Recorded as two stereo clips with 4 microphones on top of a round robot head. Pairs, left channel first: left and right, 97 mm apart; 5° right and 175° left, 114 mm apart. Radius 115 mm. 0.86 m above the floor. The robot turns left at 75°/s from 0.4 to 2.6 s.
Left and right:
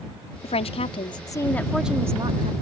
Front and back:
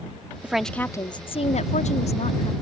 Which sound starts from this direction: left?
A woman speaking, at 0.4 s.